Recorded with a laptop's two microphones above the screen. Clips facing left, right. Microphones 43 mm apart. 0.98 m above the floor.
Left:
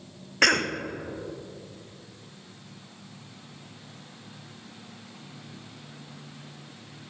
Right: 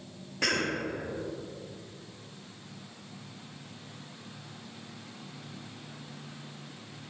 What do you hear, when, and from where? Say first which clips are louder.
0.4 s a cough: left 7 dB; 65° left (ahead or behind), 0.6 m